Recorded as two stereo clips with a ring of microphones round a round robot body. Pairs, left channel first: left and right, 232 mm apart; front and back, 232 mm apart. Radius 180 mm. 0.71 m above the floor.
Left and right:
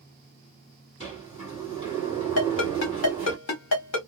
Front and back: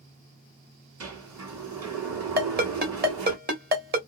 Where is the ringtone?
130° left, 1.6 m.